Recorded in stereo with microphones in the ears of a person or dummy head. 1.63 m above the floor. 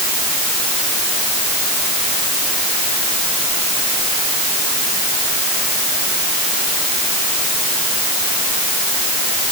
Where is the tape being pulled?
No tape being pulled in this recording.